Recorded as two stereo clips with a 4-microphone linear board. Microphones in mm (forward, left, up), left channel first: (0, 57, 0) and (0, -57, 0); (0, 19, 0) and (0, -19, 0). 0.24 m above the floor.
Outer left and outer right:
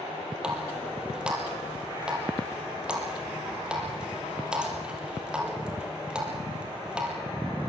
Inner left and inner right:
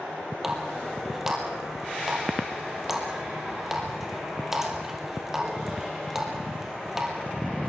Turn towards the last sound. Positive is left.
turn(degrees=-10)  # may be behind; listen again after turning